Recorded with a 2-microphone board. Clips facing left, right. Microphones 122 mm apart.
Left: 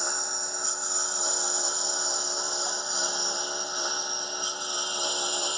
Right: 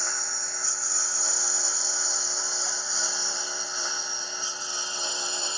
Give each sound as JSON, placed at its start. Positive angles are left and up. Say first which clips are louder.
{"t": 0.0, "sound": "a lawn mower", "louder": "left 2 dB", "side_deg": 20}